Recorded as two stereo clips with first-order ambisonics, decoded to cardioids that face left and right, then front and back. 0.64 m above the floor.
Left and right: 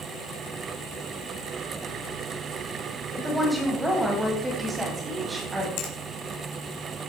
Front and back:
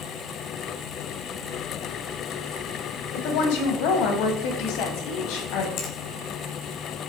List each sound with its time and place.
3.1 s a woman speaking: 5° right, 3.5 m; by 5.7 s 20° right, 4.5 m
5.8 s a finger snap: 55° left, 3.5 m